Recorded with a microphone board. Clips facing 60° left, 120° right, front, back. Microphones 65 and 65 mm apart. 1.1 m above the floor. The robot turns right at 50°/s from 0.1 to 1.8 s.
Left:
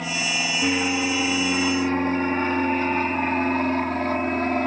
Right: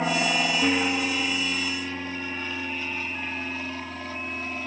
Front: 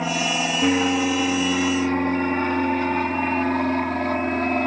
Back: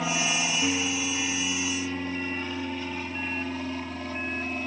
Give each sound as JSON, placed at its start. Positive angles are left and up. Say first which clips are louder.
{"t": 0.0, "sound": "an aircraft", "louder": "right 3 dB, front 5 dB", "azimuth_deg": -65}